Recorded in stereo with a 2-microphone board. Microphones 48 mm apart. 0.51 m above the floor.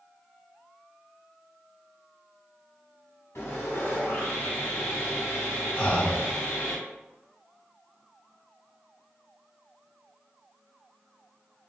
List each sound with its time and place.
3.4 s sawing: 75° left (ahead or behind), 1.9 m
5.8 s breathing: 30° left (ahead or behind), 1.2 m